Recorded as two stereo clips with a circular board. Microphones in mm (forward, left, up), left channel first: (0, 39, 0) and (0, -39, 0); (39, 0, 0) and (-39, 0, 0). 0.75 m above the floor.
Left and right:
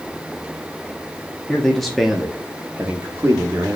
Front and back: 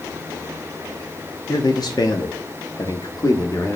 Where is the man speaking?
15° left, 1.1 m; by 3.8 s 40° right, 1.6 m.